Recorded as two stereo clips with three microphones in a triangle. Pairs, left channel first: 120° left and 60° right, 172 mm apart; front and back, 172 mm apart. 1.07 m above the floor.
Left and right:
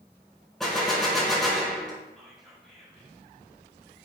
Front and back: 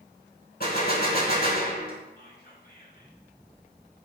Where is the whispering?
30° left, 3.5 m.